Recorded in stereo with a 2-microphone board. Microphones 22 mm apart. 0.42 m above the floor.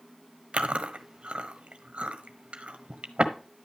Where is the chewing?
65° right (ahead or behind), 1.2 m.